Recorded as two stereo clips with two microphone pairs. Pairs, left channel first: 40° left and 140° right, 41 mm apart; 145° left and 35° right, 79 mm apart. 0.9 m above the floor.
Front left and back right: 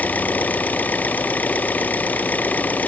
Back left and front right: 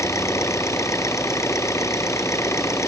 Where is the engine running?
95° left.